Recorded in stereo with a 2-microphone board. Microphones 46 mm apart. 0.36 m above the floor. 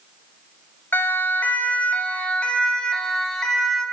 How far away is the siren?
About 2.5 m.